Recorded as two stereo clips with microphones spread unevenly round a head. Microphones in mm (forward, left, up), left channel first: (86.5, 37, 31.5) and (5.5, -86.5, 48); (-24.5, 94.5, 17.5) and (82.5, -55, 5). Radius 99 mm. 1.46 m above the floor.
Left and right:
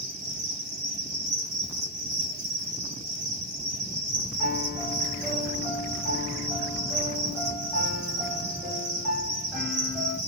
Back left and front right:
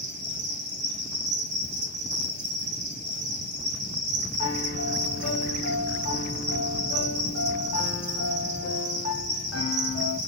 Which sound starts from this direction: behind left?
A piano, at 4.4 s.